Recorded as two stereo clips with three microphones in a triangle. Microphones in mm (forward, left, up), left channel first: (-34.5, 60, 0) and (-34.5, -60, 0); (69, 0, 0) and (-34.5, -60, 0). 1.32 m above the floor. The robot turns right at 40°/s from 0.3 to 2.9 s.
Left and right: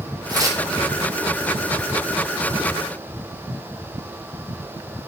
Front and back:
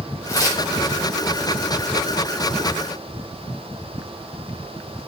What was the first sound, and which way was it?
Tearing paper, 35° right.